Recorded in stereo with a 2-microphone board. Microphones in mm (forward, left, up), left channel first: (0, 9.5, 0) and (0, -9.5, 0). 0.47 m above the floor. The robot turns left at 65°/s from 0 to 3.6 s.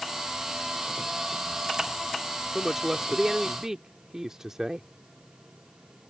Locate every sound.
2.5 s a woman speaking: 30° right; by 4.9 s 100° right